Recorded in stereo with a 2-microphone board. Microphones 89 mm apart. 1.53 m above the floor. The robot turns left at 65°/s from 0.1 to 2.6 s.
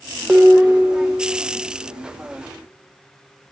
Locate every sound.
0.3 s dishes clattering: 15° right, 0.8 m; by 1.2 s 80° right, 0.8 m